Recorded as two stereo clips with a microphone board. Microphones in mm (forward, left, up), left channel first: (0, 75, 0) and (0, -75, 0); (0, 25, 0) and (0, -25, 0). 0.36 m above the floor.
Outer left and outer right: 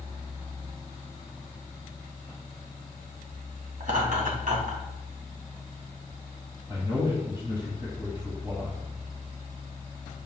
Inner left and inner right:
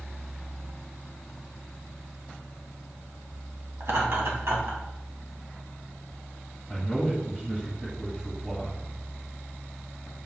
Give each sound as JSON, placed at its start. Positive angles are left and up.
{"t": 3.8, "sound": "laughter", "side_deg": -60, "distance_m": 3.5}
{"t": 6.7, "sound": "a man speaking", "side_deg": -20, "distance_m": 2.0}